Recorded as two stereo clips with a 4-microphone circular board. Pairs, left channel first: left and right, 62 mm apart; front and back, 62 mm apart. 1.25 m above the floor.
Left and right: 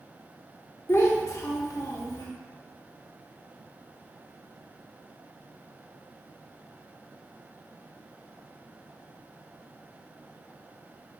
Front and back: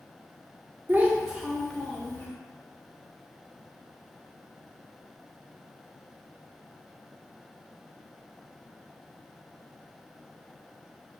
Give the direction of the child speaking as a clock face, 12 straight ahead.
8 o'clock.